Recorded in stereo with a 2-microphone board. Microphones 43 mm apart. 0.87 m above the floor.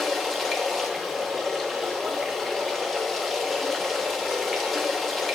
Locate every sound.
0.0 s running water: 5° left (ahead or behind), 1.3 m